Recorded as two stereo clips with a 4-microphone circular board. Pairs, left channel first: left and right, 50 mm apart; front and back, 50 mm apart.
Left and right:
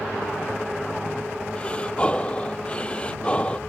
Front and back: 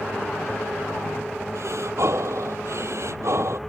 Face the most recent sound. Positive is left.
turn(degrees=160)